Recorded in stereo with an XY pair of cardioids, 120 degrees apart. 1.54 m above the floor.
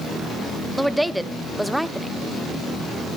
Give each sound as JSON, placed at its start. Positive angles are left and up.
{"t": 0.8, "sound": "a woman speaking", "azimuth_deg": -5, "distance_m": 0.8}